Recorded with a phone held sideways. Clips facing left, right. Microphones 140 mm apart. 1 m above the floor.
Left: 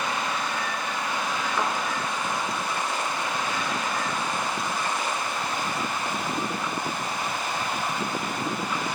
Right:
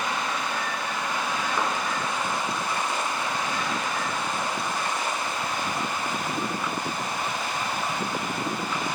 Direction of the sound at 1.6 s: 15° right (ahead or behind).